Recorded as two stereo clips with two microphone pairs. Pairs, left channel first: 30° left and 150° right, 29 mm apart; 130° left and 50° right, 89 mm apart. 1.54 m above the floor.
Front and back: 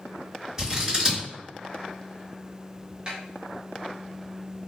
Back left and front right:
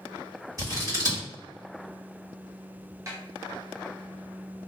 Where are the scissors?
85° right, 1.9 m.